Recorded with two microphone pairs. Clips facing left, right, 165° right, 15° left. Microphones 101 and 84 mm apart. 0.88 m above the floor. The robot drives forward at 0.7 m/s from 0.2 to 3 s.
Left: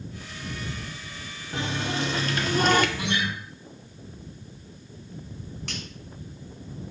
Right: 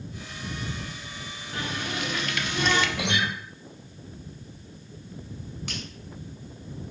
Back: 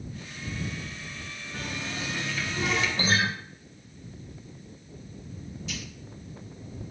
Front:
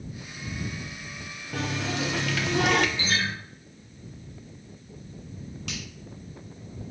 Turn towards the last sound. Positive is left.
turn(degrees=-5)